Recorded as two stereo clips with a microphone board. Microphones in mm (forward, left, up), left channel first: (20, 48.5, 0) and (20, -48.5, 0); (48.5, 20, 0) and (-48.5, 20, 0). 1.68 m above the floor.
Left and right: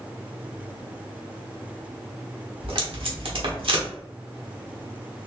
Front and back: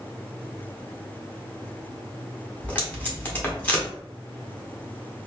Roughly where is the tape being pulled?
Right.